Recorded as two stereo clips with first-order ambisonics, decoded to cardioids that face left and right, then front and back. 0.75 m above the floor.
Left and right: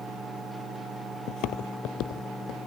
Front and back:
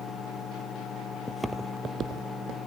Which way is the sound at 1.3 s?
85° left.